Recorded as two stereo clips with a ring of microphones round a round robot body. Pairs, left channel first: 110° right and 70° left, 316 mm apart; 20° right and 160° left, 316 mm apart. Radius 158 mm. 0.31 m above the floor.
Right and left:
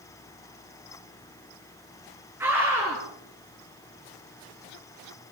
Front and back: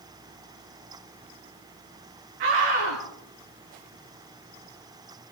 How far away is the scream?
About 4.5 m.